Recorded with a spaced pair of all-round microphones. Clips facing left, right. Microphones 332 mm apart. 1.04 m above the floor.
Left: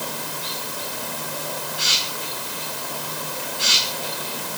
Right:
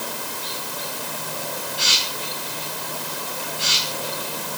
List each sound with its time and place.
Only background noise.